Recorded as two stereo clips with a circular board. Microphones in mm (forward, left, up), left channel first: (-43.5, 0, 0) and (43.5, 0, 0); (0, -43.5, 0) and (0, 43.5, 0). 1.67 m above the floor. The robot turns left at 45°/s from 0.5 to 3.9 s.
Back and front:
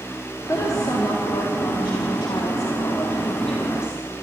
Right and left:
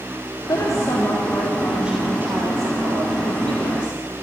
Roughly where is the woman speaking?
Behind right.